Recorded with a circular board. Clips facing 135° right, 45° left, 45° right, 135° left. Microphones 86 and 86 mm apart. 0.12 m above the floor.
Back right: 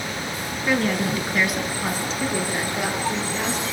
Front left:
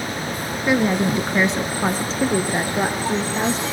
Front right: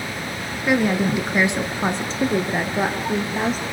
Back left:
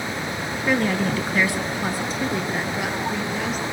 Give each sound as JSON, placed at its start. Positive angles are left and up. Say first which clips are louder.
{"t": 0.7, "sound": "a woman speaking", "louder": "front left 4 dB, front right 3 dB", "azimuth_deg": 25, "distance_m": 1.2}